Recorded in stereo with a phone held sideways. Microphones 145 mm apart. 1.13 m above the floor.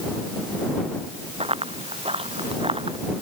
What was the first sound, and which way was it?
Running footsteps, 40° right (ahead or behind).